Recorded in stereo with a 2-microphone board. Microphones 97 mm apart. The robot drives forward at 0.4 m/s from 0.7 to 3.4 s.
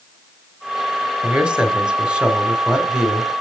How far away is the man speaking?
About 1.3 m.